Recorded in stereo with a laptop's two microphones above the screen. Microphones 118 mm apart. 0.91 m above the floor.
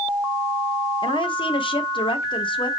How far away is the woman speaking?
About 0.8 m.